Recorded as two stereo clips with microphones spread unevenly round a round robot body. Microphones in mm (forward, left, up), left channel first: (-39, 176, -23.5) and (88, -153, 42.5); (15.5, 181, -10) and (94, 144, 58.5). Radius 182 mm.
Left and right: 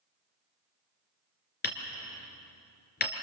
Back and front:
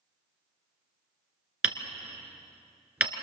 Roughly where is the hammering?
Ahead left.